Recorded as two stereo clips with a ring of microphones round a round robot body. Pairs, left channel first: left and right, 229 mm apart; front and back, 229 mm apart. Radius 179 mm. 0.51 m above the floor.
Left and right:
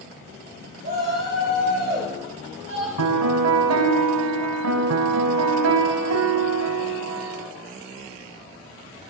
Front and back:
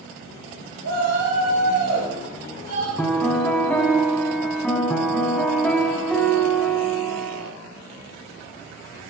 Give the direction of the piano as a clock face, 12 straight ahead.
3 o'clock.